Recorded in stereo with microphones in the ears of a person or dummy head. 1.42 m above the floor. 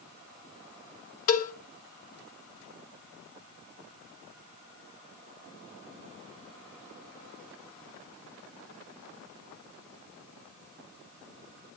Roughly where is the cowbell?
Left.